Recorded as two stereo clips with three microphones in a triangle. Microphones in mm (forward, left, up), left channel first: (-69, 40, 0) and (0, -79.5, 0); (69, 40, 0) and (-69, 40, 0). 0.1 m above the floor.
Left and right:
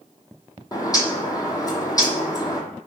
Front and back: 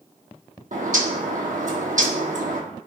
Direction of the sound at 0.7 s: 175° right.